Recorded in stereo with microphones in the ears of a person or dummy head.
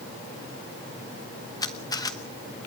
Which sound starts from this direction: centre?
A camera shutter, at 1.6 s.